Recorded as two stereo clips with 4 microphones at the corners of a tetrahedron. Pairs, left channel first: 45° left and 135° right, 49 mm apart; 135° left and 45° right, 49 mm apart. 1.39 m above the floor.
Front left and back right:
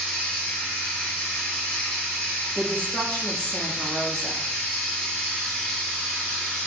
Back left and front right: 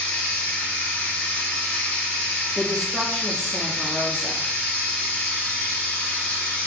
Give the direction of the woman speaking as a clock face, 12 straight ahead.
9 o'clock.